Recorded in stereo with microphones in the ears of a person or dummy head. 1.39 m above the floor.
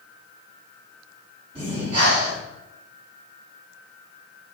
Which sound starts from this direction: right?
Breathing, at 1.6 s.